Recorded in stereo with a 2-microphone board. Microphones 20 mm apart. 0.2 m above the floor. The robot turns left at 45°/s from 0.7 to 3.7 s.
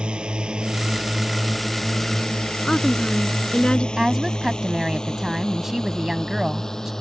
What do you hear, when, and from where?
0.0 s a drone: 55° right (ahead or behind); by 7.0 s 25° left (ahead or behind)
2.6 s a woman speaking: 130° left; by 3.9 s 80° left
4.0 s a woman speaking: 20° right (ahead or behind)